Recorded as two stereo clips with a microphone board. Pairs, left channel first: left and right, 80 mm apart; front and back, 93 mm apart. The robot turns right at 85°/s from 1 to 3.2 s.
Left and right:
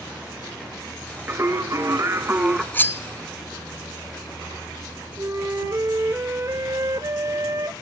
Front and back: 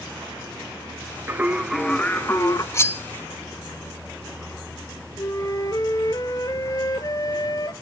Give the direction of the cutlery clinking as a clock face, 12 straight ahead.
11 o'clock.